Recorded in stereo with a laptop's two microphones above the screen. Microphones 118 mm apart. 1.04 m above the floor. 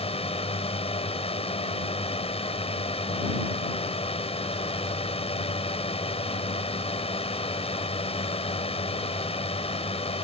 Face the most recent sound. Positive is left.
turn(degrees=55)  # may be behind; listen again after turning